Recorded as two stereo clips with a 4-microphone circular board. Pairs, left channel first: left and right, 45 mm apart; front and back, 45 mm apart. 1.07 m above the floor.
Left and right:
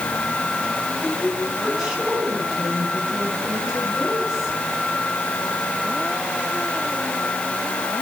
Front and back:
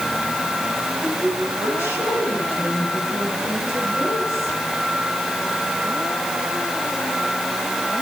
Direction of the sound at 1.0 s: 10° right.